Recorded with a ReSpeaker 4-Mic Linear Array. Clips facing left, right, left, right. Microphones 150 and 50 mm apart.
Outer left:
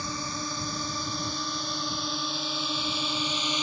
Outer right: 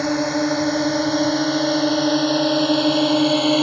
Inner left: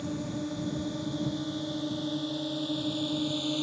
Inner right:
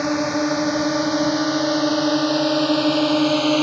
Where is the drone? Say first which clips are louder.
Outer right 16 dB, inner right 14 dB; 75° right (ahead or behind); by 3.6 s 70° right (ahead or behind).